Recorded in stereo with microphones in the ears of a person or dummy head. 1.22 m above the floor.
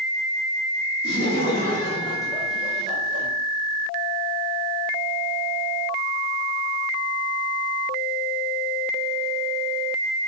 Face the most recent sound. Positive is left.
turn(degrees=-35)  # may be behind; listen again after turning